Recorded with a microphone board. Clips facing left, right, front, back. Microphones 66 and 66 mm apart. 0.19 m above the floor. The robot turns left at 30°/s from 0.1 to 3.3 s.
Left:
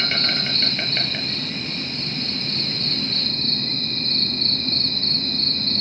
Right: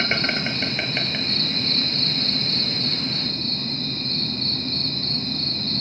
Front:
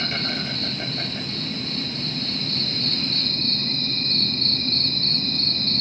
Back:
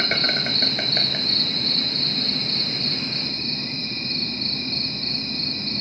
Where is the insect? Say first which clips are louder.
Right 2 dB, back 3 dB; 145° right, 3 m; by 5.8 s 120° left, 3 m.